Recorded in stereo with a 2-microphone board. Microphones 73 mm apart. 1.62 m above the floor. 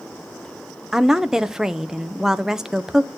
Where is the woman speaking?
5° right (ahead or behind), 0.8 m.